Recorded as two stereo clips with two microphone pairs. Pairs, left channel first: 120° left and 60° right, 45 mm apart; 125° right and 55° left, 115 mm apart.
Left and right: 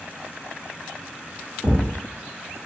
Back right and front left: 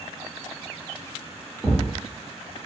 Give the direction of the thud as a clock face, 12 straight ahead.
1 o'clock.